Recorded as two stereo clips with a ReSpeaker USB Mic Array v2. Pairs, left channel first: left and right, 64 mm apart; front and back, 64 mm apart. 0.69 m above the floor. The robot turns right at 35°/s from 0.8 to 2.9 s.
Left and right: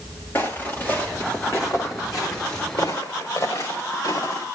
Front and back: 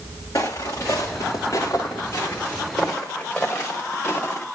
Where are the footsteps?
30° left, 3.5 m; by 4.5 s 65° left, 4 m.